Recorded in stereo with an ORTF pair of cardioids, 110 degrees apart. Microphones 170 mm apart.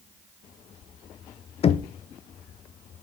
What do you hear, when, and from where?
1.6 s knocking: 35° left, 0.7 m